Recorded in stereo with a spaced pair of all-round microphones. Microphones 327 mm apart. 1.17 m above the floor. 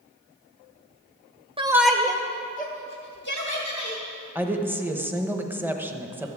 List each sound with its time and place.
1.6 s a shout: 15° right (ahead or behind), 0.6 m; by 4.0 s 45° left (ahead or behind), 1.9 m
4.3 s a woman speaking: 5° right (ahead or behind), 0.9 m